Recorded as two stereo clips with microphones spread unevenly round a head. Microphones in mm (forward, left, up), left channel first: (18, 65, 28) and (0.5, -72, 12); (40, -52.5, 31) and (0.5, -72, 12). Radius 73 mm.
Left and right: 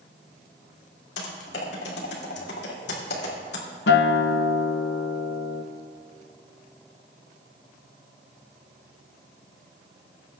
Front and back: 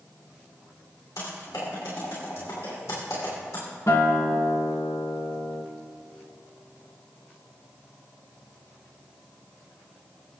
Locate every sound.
1.2 s typing on a keyboard: 85° left, 2.5 m
3.9 s a guitar: 85° left, 0.6 m